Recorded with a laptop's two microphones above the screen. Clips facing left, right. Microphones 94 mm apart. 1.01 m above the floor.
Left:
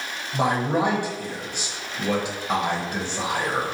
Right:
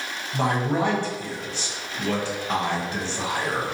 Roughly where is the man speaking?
Centre.